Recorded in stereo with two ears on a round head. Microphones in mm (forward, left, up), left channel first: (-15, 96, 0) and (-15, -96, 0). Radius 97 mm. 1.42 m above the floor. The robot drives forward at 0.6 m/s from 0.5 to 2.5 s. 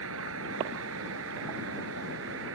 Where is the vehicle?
75° right (ahead or behind); by 2.6 s 70° right (ahead or behind).